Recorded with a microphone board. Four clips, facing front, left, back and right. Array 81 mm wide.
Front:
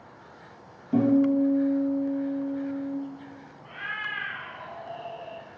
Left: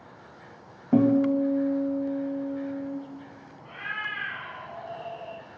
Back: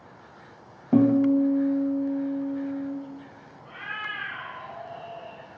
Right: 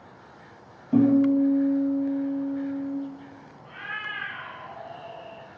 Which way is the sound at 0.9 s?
140° left.